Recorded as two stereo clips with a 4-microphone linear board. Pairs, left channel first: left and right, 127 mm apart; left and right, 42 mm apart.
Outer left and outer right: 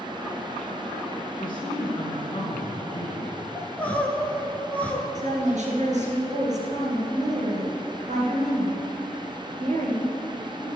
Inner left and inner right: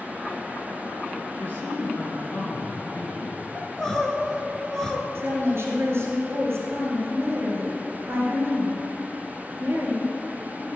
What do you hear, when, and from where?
1.4 s a man speaking: 35° left (ahead or behind), 3.5 m
3.5 s crying: 10° left (ahead or behind), 1.4 m
5.2 s a woman speaking: 65° right (ahead or behind), 3.5 m